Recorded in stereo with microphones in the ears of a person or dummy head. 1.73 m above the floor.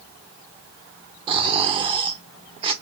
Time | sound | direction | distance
1.3 | snoring | 30° right (ahead or behind) | 0.6 m